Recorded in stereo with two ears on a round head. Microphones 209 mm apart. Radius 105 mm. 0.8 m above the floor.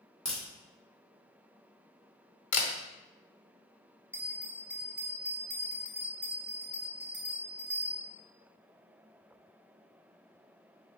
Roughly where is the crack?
Centre.